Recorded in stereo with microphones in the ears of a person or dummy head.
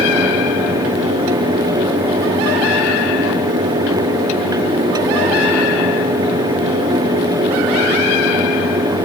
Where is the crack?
I don't hear a crack.